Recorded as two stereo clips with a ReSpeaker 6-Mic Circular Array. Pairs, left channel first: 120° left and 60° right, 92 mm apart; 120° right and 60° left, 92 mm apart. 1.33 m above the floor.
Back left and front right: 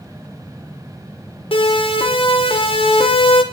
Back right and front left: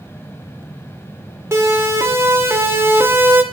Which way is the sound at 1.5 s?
120° left.